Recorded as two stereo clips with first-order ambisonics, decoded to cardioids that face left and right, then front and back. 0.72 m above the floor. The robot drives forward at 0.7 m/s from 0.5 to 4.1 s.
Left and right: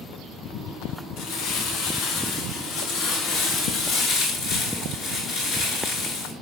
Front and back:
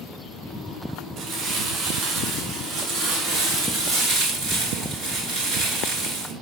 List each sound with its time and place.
1.2 s crumpling: 135° left, 5.5 m; by 6.3 s 145° left, 7.5 m